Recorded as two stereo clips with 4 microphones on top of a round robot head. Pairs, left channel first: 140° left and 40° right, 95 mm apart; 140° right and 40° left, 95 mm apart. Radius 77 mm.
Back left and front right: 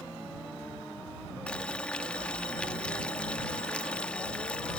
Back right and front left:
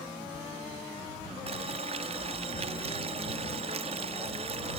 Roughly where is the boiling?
Ahead left.